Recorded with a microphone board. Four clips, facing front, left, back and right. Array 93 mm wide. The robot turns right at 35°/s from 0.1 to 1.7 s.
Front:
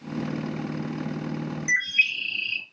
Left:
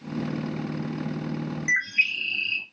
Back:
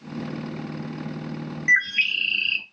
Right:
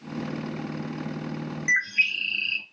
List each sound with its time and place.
1.7 s a bird: 175° right, 1.9 m